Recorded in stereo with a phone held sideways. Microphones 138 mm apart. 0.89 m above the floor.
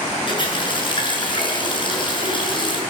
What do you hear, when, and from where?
0.3 s a running tap: 35° left (ahead or behind), 8 m